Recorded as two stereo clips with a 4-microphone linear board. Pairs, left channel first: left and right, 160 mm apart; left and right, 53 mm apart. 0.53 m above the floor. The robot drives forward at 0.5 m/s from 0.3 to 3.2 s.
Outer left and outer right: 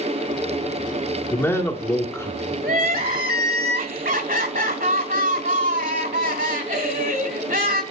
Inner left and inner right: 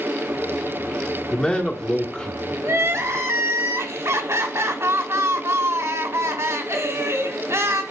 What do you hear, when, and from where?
1.3 s a man speaking: 15° left (ahead or behind), 1.5 m; by 2.5 s 20° left (ahead or behind), 1.3 m
2.6 s crying: 70° right (ahead or behind), 1.4 m; by 7.8 s 65° right (ahead or behind), 1.5 m